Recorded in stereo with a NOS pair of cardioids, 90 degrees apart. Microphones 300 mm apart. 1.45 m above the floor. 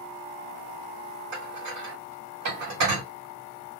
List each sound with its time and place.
1.3 s dishes clattering: 70° right, 3.5 m